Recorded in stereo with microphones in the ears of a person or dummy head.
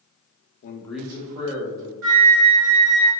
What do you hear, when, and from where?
0.6 s a man speaking: 55° left (ahead or behind), 0.5 m; by 1.9 s 40° right (ahead or behind), 1.8 m
2.0 s a flute: 70° right (ahead or behind), 1.0 m